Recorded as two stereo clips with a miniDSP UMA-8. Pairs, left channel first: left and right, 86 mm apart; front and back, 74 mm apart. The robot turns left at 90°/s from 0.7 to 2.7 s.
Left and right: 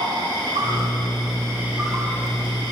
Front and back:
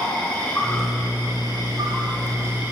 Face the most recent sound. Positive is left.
turn(degrees=105)